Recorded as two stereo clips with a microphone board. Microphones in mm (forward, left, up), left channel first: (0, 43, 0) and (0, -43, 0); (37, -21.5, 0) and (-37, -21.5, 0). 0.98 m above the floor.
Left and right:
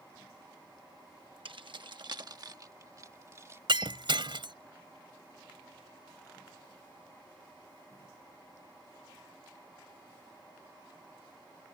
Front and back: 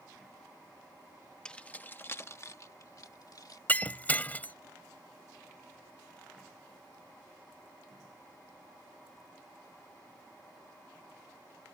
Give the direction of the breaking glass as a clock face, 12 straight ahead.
2 o'clock.